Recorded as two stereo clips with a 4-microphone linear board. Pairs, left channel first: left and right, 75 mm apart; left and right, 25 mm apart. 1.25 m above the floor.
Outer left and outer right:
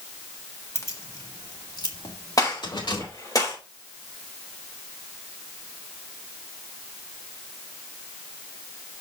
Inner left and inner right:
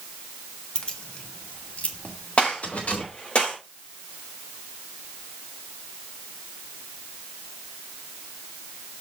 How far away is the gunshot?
About 4.5 m.